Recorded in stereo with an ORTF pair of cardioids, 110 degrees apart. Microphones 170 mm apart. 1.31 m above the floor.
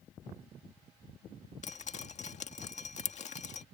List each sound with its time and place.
1.6 s dripping: 45° left